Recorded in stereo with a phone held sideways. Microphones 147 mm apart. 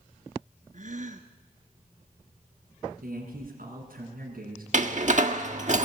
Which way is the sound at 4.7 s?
55° right (ahead or behind).